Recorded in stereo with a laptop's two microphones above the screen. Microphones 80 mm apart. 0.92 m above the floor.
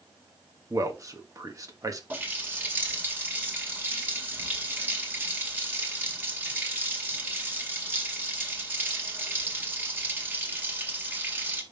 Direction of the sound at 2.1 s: 25° right (ahead or behind).